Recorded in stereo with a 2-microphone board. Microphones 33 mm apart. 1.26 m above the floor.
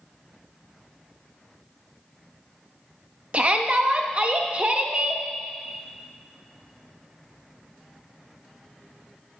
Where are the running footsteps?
I don't hear running footsteps.